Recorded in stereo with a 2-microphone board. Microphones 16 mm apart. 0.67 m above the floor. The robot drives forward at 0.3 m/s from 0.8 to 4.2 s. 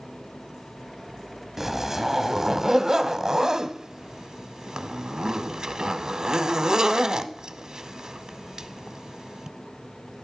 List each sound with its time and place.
1.6 s a zipper: 25° right (ahead or behind), 1.0 m; by 9.5 s 50° right (ahead or behind), 0.5 m